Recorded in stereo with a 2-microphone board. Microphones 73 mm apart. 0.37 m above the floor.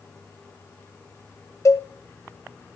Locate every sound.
1.6 s a cowbell: 45° left (ahead or behind), 1.4 m